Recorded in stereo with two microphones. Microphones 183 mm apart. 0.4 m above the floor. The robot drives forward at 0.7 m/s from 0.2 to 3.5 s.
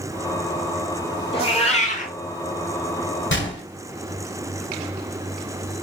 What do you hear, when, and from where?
1.3 s a cat meowing: 30° left (ahead or behind), 1.1 m; by 2.1 s 50° left (ahead or behind), 0.7 m
3.3 s a gunshot: 90° left, 0.9 m; by 3.6 s 80° left, 0.9 m